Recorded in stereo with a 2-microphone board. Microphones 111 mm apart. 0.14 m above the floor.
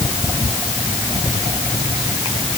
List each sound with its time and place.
Only background noise.